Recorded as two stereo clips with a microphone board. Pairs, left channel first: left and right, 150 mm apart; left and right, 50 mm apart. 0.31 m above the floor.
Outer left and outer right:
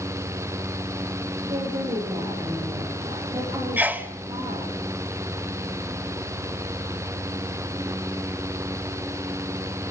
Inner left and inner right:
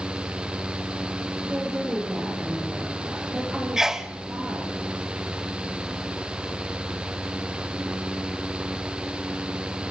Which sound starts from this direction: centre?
A sneeze, at 3.8 s.